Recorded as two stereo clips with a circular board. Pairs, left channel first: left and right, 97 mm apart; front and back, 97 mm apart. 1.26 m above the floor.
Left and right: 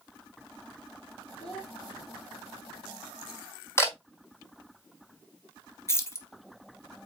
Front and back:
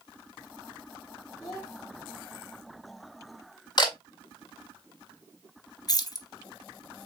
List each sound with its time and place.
1.4 s a child speaking: 80° left, 3 m
3.8 s a camera shutter: 30° left, 1.6 m
5.9 s keys jangling: 35° left, 0.7 m